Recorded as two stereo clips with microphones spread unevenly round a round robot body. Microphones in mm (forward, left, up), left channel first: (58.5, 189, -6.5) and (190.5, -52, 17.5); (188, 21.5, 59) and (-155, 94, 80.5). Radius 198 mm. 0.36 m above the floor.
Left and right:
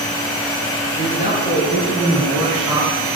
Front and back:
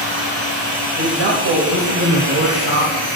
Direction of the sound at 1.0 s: 160° left.